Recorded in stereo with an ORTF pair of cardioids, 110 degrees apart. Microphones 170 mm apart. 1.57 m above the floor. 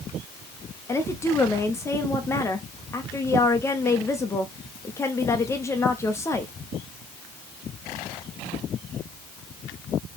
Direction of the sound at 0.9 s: 15° left.